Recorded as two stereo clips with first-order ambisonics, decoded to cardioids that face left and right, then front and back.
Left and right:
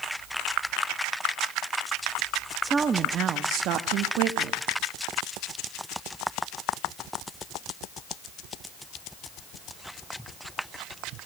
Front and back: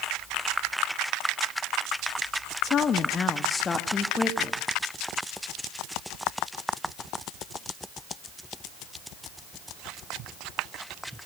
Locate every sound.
2.6 s a woman speaking: 20° right, 0.8 m; by 4.6 s 75° right, 1.6 m